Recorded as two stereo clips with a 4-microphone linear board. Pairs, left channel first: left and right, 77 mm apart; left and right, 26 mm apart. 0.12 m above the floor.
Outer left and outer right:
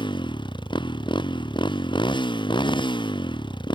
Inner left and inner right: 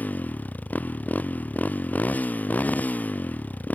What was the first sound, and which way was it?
A motorcycle, 75° left (ahead or behind).